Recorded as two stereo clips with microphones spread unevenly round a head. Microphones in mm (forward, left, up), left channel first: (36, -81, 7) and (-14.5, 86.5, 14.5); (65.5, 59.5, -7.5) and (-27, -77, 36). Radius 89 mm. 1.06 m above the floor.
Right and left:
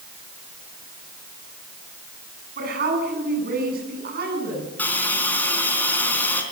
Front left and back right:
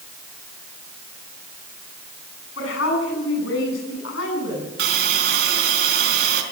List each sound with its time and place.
2.6 s a woman speaking: 70° left, 8.5 m
4.8 s a hiss: 155° right, 3.5 m